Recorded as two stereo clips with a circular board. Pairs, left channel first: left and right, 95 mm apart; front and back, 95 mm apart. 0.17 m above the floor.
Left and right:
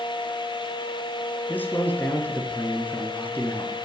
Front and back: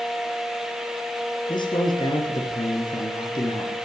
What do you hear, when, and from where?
1.5 s a man speaking: 20° left, 2 m